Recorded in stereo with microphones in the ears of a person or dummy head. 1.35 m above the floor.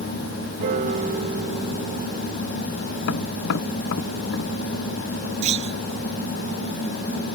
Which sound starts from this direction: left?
Tapping, at 3.0 s.